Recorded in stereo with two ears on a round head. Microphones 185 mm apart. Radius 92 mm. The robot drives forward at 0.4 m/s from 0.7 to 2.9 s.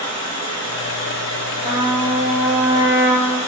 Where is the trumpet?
25° right (ahead or behind), 0.5 m; by 3.4 s 15° right (ahead or behind), 0.8 m.